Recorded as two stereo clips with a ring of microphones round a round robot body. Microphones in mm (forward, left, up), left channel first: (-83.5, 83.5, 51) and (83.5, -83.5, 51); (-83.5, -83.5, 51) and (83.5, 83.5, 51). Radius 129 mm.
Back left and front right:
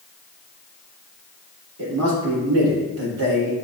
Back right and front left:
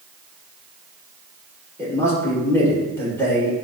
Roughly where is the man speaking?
Ahead right.